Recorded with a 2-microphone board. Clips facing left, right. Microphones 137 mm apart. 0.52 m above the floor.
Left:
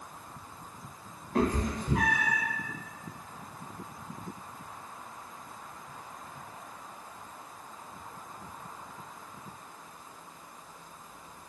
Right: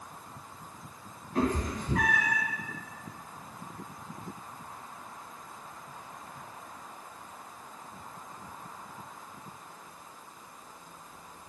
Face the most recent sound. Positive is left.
turn(degrees=-15)  # may be behind; listen again after turning